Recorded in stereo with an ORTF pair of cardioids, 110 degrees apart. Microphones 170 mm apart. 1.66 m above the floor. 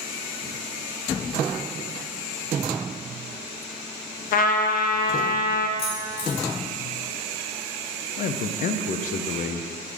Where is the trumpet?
55° left, 0.5 m.